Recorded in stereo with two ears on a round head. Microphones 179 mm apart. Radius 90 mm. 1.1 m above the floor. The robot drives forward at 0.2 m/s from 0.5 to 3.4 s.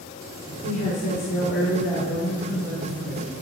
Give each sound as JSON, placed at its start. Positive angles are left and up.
{"t": 0.6, "sound": "a woman speaking", "side_deg": 70, "distance_m": 3.0}